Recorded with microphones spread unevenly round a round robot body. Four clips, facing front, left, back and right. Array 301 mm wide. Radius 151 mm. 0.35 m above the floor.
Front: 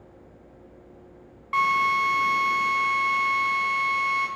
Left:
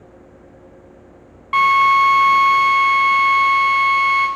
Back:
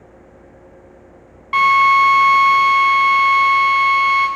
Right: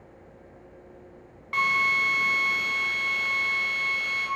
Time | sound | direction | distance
1.5 | a drill | 140° left | 1.3 m